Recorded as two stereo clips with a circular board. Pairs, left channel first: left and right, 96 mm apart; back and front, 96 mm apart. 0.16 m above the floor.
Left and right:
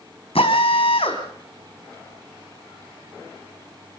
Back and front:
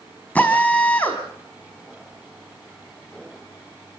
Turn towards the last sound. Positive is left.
turn(degrees=105)